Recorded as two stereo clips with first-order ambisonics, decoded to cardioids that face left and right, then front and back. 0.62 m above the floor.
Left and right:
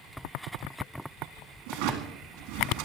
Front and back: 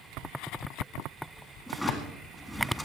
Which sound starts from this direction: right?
A drawer, at 1.7 s.